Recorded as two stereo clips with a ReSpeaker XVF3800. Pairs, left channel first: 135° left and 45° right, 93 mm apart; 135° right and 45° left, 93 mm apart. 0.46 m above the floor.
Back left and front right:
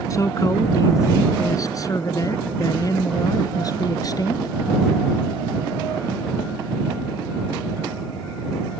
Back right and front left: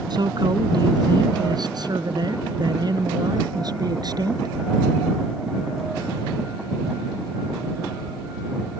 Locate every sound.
0.1 s a man speaking: 85° left; by 4.5 s 90° left